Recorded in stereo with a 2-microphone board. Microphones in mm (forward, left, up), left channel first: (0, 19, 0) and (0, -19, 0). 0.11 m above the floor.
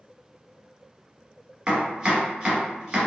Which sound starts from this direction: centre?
Chopping, at 1.7 s.